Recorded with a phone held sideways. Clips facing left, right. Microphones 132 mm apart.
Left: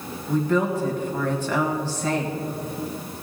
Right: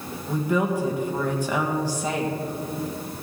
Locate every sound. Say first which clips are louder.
0.3 s a woman speaking: left 2 dB; 15° right (ahead or behind), 1.9 m